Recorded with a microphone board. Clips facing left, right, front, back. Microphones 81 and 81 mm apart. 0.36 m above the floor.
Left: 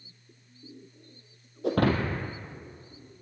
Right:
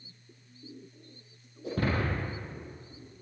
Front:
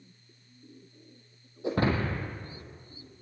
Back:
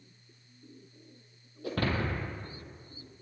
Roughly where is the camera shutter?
No camera shutter in this recording.